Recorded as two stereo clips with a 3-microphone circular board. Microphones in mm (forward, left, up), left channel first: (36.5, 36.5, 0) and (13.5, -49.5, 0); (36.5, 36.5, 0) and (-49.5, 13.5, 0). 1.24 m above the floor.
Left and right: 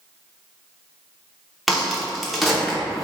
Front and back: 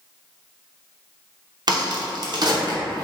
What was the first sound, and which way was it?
A crack, 165° left.